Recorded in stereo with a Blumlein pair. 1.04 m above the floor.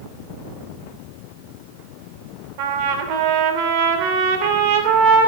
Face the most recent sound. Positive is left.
turn(degrees=-45)